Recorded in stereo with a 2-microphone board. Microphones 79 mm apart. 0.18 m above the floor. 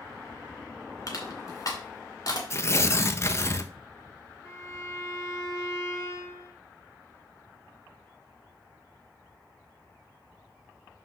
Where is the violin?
35° left (ahead or behind), 3 m.